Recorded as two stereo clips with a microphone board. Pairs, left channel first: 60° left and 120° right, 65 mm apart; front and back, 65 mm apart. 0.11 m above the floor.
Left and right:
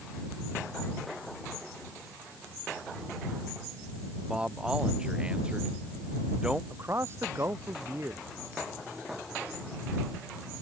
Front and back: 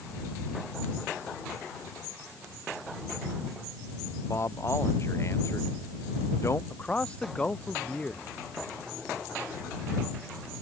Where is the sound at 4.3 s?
45° right.